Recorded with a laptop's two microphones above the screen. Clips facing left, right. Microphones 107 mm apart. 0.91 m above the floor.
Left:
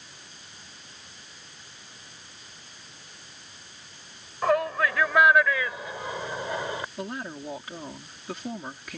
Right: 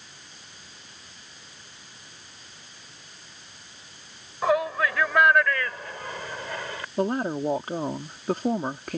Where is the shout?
5° right (ahead or behind); by 6.9 s 20° left (ahead or behind).